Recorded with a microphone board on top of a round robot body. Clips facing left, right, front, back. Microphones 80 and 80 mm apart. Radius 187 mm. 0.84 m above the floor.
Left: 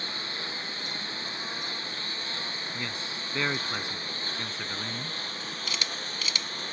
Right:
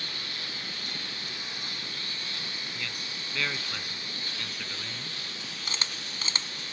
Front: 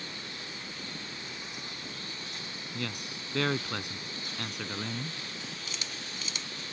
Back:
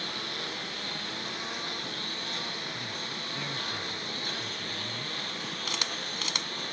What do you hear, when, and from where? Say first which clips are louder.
0.0 s a lawn mower: left 3 dB, back 6 dB; 150° left; by 6.7 s 140° left
2.7 s a man speaking: left 3 dB, even; 25° left
5.7 s a camera shutter: even, back 6 dB; 150° right